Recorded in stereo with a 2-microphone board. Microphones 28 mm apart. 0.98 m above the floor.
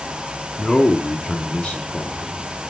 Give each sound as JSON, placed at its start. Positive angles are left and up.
{"t": 0.6, "sound": "a man speaking", "side_deg": 30, "distance_m": 2.5}